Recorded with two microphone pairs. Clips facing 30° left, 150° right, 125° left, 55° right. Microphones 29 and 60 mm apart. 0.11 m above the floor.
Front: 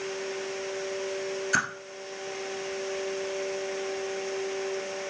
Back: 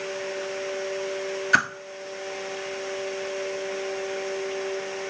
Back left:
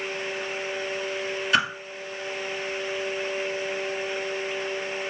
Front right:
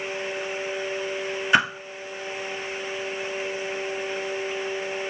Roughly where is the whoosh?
Right.